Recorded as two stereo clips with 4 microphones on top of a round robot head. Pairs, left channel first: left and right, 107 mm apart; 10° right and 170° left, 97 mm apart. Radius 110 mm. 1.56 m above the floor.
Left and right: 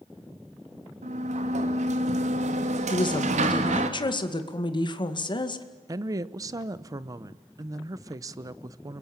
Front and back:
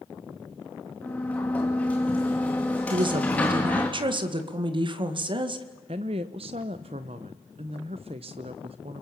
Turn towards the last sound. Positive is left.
turn(degrees=-145)